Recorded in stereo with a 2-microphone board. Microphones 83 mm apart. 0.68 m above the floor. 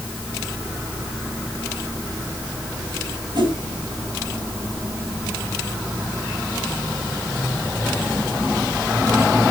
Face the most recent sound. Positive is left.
turn(degrees=-60)  # may be behind; listen again after turning